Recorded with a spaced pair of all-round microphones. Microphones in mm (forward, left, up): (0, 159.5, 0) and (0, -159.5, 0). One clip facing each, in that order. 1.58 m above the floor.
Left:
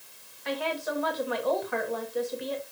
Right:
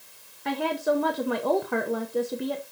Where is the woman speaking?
55° right (ahead or behind), 1.0 m.